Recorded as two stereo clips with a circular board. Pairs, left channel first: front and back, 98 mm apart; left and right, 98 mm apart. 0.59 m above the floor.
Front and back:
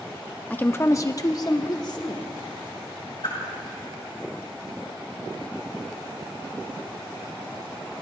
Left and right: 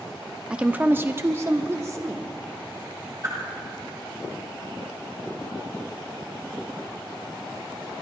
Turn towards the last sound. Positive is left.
turn(degrees=-35)